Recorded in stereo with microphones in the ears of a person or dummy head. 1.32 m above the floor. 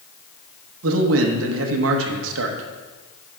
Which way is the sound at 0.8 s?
75° right (ahead or behind).